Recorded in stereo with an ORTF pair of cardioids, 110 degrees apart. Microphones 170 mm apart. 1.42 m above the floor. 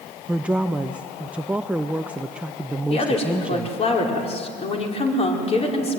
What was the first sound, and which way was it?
A woman speaking, 5° right.